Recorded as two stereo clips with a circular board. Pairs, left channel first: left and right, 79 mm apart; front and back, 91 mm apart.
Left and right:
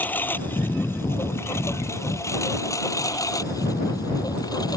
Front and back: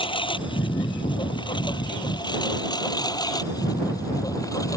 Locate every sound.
0.0 s a lawn mower: 20° left; by 4.8 s 55° left